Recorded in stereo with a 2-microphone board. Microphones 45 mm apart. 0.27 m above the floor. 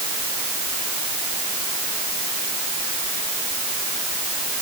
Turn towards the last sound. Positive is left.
No sound to turn to.